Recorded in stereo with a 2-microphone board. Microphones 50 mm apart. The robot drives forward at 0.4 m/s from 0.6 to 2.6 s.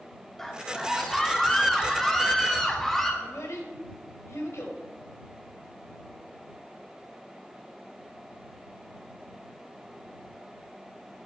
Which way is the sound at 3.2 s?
75° left (ahead or behind).